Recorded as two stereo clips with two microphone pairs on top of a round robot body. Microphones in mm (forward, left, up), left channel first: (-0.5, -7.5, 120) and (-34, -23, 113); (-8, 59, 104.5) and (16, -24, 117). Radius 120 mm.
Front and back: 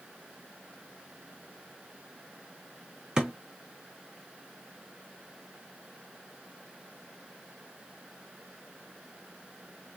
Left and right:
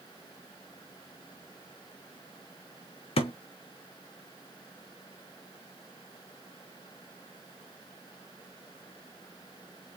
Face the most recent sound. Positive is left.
turn(degrees=125)